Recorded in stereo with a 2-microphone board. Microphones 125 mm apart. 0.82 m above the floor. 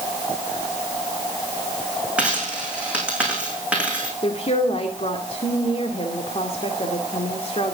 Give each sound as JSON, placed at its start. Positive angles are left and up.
{"t": 2.2, "sound": "a dropped coin", "side_deg": -10, "distance_m": 6.0}
{"t": 4.2, "sound": "a woman speaking", "side_deg": 50, "distance_m": 2.5}